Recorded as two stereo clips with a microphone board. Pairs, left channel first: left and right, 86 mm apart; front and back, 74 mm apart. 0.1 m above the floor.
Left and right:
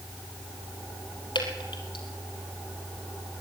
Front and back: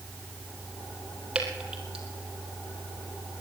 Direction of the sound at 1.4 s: 100° left.